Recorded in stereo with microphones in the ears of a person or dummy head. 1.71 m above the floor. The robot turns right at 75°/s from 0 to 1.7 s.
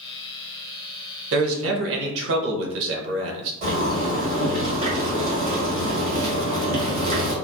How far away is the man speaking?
About 0.7 m.